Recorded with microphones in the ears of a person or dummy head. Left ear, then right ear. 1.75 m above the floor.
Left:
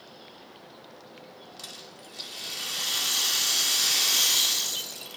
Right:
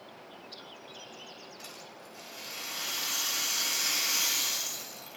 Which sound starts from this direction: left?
A rattle, at 1.6 s.